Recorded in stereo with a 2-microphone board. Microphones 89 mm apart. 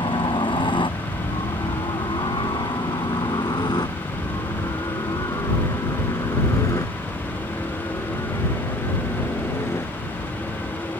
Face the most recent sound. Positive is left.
turn(degrees=30)  # may be behind; listen again after turning